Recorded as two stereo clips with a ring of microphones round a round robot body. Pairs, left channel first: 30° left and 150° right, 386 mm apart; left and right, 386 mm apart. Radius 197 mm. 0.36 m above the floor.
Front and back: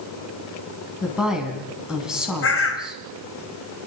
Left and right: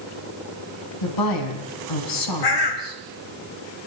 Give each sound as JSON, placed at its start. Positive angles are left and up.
{"t": 1.0, "sound": "a woman speaking", "azimuth_deg": 120, "distance_m": 4.0}
{"t": 2.4, "sound": "a bird", "azimuth_deg": 85, "distance_m": 1.9}